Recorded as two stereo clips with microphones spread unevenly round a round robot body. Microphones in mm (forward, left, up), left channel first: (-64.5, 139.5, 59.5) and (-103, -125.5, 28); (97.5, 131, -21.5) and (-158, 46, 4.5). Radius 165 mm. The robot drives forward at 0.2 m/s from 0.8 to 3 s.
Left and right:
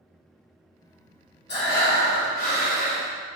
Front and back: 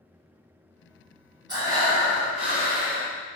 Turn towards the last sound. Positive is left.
turn(degrees=135)